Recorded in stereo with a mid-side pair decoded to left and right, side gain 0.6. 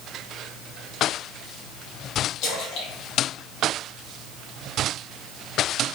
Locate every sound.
2.4 s a splash: 65° left, 3 m